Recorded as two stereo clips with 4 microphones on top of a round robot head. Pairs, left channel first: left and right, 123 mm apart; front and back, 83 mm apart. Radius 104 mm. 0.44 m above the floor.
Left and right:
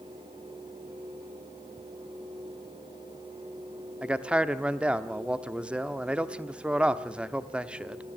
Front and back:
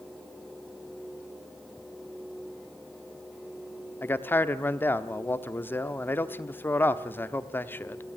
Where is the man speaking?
20° right, 1.0 m.